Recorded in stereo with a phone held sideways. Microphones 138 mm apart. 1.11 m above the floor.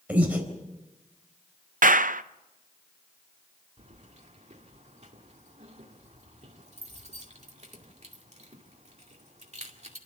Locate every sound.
0.1 s breathing: 10° right (ahead or behind), 3.5 m
1.8 s a clap: 65° right (ahead or behind), 0.6 m
3.8 s keys jangling: 50° right (ahead or behind), 2 m